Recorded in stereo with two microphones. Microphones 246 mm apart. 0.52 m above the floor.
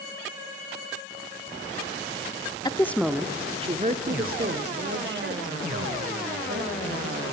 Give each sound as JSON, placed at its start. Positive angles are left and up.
{"t": 2.6, "sound": "a woman speaking", "side_deg": 15, "distance_m": 0.7}